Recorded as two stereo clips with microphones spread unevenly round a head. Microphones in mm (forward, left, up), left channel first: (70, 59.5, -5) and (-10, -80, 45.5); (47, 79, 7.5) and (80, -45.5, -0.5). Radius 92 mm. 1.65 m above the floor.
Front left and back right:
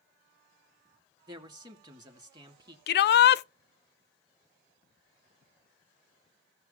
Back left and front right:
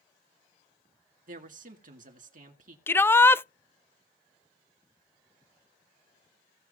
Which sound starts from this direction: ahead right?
A man speaking, at 1.3 s.